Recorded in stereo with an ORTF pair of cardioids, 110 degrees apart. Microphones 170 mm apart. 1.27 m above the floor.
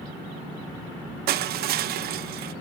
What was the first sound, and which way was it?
Crushing, 65° right.